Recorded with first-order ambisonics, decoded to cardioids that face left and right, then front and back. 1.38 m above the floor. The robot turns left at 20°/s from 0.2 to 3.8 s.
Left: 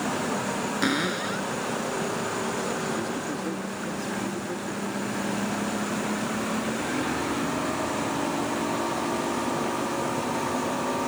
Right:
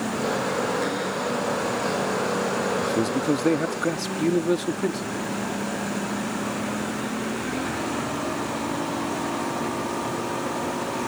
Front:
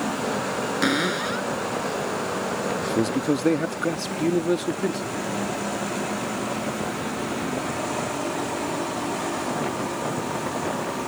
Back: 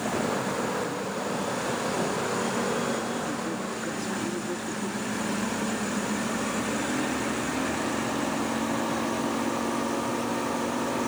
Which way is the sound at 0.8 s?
25° left.